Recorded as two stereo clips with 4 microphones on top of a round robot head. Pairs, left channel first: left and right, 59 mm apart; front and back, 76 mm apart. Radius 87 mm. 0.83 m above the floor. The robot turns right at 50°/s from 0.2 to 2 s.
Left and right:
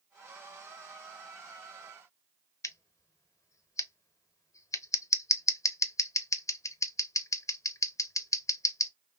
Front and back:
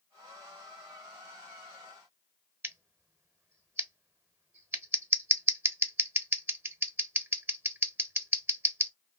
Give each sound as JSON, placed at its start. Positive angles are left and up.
{"t": 2.6, "sound": "scissors", "azimuth_deg": 120, "distance_m": 0.7}